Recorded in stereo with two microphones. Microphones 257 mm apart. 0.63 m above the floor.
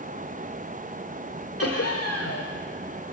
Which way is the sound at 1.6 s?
65° left (ahead or behind).